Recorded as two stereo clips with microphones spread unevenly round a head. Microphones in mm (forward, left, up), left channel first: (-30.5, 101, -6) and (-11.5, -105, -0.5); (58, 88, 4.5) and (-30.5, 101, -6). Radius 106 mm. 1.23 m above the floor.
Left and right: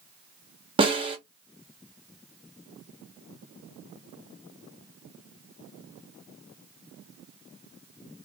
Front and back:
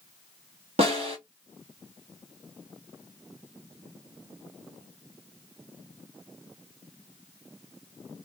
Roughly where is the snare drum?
Behind right.